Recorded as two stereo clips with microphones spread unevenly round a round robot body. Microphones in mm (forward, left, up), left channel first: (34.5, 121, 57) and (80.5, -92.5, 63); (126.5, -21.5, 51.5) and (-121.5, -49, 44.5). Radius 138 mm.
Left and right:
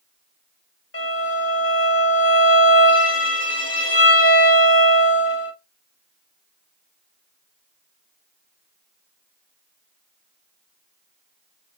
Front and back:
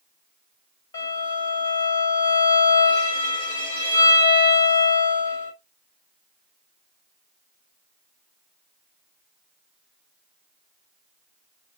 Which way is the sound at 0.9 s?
80° left.